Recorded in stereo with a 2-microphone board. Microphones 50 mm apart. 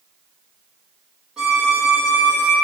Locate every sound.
1.4 s a violin: 15° right (ahead or behind), 5 m